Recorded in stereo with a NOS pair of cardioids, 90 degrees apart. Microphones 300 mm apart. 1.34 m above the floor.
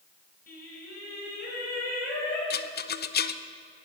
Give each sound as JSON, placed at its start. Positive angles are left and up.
{"t": 0.5, "sound": "singing", "azimuth_deg": 35, "distance_m": 5.5}
{"t": 2.5, "sound": "a rattle", "azimuth_deg": 35, "distance_m": 0.6}